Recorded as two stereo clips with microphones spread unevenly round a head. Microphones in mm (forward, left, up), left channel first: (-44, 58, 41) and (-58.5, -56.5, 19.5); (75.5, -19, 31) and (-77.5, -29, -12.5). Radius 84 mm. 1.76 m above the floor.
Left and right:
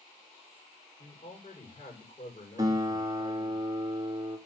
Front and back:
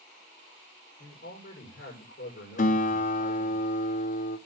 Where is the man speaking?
40° left, 6.5 m.